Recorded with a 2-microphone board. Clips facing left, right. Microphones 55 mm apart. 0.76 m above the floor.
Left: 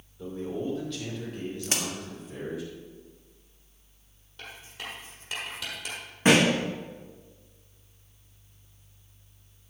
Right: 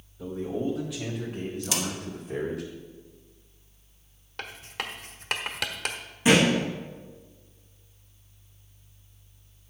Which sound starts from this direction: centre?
A man speaking, at 0.2 s.